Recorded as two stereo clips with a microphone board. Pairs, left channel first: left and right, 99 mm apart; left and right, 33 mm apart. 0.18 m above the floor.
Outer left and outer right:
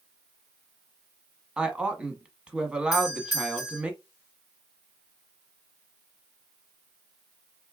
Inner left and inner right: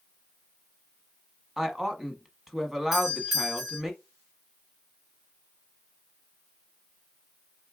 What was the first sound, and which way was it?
A woman speaking, 10° right (ahead or behind).